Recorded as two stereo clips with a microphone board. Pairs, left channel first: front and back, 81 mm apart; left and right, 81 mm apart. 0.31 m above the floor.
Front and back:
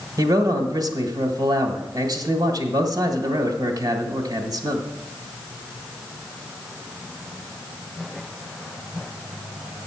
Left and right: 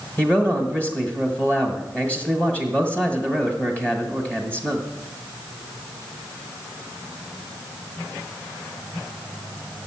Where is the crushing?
I don't hear crushing.